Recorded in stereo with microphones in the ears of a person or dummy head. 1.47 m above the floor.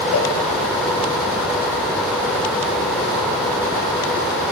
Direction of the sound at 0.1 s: 85° left.